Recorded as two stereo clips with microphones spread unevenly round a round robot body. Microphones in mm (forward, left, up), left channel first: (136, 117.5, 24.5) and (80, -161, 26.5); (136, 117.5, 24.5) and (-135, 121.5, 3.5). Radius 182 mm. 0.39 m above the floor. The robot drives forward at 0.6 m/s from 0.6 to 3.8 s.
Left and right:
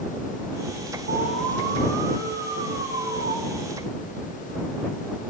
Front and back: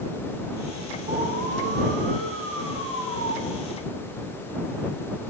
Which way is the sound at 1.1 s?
135° right.